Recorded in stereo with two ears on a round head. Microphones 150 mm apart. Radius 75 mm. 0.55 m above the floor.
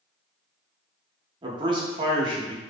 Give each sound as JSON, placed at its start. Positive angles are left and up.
{"t": 1.4, "sound": "a man speaking", "side_deg": -30, "distance_m": 0.7}